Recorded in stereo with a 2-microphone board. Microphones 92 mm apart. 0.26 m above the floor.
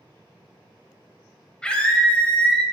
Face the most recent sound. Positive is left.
turn(degrees=10)  # may be behind; listen again after turning